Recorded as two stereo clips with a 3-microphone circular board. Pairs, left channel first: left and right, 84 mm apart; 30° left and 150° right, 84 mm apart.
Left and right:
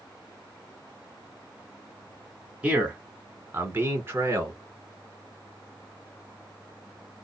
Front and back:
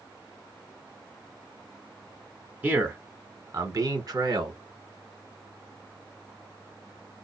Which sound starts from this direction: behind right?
A man speaking, at 2.6 s.